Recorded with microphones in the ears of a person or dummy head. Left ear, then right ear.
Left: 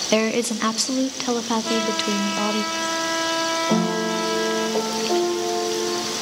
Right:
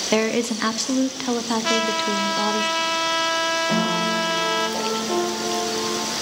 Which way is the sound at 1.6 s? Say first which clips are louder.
Right 2 dB; 70° right (ahead or behind).